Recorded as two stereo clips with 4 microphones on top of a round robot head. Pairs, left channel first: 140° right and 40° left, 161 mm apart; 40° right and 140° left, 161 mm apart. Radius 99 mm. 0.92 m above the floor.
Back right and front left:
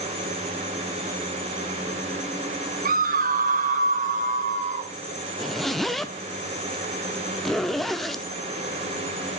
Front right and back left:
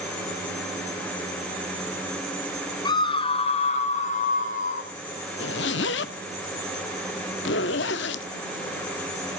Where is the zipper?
50° right, 0.6 m.